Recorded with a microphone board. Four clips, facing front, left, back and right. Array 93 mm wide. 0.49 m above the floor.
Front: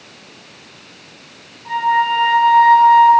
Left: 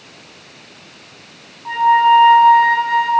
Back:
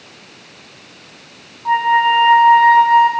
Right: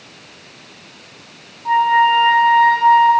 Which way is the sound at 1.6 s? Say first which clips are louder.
Left 1 dB, back 3 dB; 175° right.